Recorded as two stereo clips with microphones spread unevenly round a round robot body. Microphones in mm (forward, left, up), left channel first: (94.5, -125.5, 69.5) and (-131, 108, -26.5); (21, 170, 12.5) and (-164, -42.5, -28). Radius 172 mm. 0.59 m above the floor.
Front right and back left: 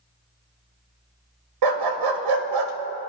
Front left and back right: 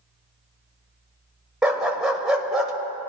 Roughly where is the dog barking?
Behind left.